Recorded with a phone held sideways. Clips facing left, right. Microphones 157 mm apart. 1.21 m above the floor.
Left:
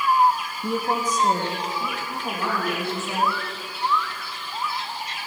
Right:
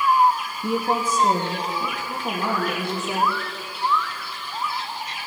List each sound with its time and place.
0.6 s a woman speaking: centre (ahead or behind), 0.6 m; by 3.4 s 20° right (ahead or behind), 2.5 m